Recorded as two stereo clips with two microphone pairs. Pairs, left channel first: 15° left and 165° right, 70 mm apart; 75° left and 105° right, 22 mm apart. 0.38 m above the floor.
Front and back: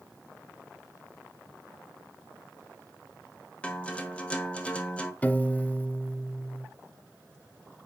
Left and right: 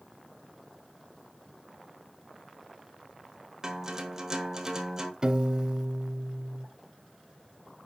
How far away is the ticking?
No ticking in this recording.